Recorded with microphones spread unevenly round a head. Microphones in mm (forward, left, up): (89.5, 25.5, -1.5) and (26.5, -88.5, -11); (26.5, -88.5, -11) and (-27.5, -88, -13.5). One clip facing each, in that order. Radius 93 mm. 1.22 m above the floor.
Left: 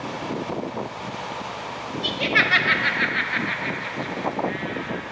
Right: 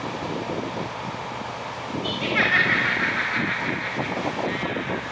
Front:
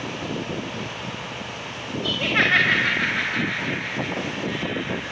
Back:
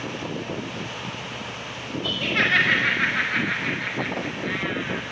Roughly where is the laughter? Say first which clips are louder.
Left 1 dB, front 2 dB; left.